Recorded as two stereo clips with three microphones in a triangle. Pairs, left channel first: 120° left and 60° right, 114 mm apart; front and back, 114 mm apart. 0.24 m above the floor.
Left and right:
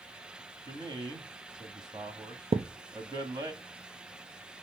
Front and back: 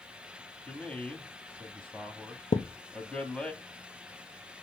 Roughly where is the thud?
Ahead right.